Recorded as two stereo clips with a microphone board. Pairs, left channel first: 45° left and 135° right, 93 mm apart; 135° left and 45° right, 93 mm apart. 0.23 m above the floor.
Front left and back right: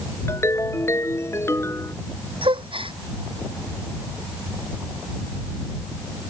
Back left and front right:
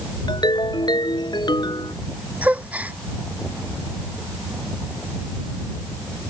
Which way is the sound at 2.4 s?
120° right.